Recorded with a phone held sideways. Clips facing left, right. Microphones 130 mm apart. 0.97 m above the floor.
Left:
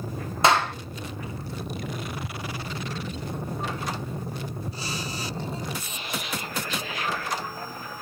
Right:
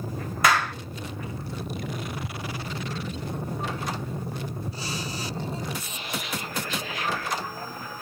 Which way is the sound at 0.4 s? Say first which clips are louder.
Left 2 dB; 25° left (ahead or behind).